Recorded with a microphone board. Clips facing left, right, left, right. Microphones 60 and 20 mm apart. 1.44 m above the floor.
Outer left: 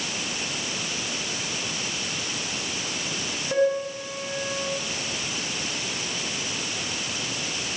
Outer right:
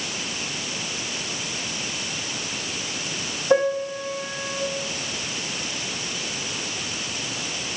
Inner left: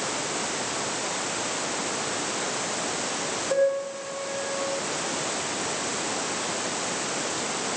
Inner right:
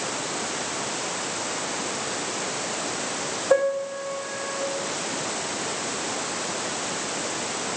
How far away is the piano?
About 3 m.